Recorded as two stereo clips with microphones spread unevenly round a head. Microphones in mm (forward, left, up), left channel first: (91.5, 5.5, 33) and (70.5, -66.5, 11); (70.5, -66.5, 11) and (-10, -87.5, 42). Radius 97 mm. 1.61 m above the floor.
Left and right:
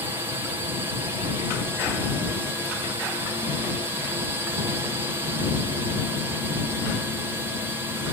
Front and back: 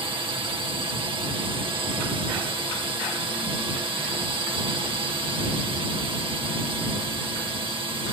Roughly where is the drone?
Behind right.